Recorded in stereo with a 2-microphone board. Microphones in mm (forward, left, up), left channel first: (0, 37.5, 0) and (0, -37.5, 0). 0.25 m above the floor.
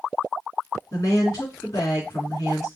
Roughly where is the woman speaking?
Left.